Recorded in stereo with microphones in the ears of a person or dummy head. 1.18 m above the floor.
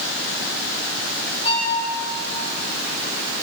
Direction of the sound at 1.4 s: 35° left (ahead or behind).